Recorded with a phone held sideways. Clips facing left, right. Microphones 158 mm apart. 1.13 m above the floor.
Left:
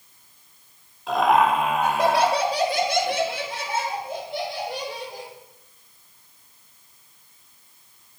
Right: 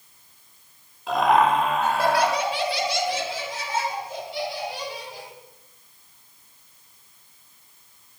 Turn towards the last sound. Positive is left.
turn(degrees=45)  # may be behind; listen again after turning